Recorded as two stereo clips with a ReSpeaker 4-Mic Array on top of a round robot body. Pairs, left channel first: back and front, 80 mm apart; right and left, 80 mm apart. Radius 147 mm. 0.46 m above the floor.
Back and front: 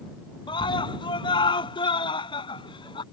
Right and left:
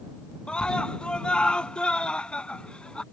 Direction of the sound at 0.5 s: 170° right.